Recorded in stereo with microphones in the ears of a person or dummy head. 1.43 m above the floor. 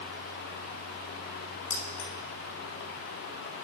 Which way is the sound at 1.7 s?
40° left (ahead or behind).